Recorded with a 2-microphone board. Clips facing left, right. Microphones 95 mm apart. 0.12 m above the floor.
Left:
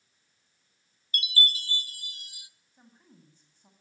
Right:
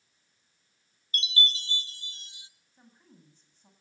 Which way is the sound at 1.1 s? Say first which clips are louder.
Left 1 dB; 25° right (ahead or behind).